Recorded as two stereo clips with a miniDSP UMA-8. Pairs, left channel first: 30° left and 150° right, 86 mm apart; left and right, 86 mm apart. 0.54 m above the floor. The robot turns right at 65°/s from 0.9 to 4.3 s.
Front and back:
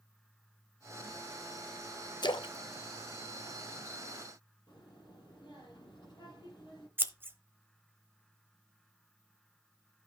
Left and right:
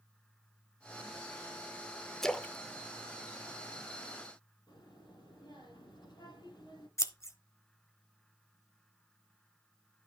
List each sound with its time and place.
2.2 s a splash: 5° left, 0.6 m; by 4.0 s 120° left, 0.6 m
4.7 s a child speaking: 65° left, 9 m
7.0 s scissors: 145° left, 0.9 m